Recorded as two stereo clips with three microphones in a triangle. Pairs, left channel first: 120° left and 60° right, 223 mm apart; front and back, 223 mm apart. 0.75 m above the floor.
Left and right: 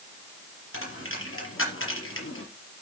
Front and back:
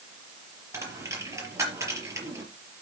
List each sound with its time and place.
0.7 s a dropped coin: 105° left, 5 m